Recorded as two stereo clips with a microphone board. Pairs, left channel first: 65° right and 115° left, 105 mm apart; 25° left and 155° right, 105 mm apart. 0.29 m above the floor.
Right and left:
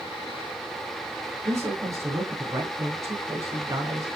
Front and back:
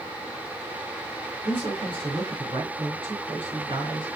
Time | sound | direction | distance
1.4 | a man speaking | 170° left | 4 m